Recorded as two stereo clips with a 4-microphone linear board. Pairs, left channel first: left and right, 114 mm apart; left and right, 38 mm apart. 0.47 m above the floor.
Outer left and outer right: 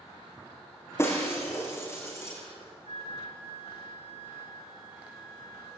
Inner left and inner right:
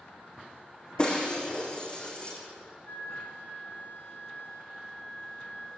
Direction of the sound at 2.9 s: 55° left (ahead or behind).